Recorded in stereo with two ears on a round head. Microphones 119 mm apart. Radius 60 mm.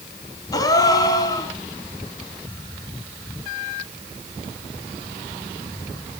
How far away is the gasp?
About 1.6 m.